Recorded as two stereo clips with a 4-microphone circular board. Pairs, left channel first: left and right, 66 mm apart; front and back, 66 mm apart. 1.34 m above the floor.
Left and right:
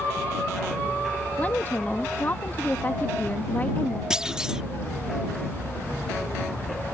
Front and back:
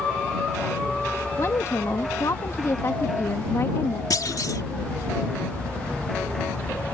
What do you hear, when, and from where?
1.4 s a woman speaking: 35° left
4.1 s a clunk: 10° right